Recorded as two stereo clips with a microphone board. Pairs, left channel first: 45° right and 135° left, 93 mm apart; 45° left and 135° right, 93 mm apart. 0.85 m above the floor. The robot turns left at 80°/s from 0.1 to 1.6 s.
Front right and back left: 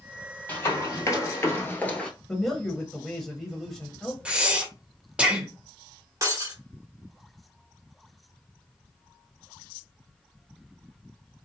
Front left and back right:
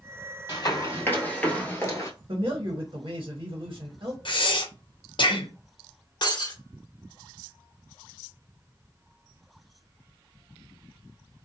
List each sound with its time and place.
0.5 s running footsteps: 20° left, 1.4 m; by 2.1 s 30° left, 1.0 m
2.3 s a man speaking: 130° right, 0.8 m
4.2 s breathing: 60° left, 0.6 m
6.2 s breaking glass: 80° left, 0.9 m